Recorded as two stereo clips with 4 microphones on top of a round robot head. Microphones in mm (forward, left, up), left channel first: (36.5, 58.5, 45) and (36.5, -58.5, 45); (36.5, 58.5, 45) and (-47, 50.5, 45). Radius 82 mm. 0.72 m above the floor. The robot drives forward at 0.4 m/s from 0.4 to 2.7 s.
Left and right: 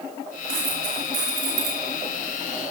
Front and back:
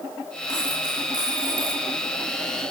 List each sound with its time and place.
0.5 s a dropped coin: 115° right, 4.5 m; by 1.8 s 120° right, 4.5 m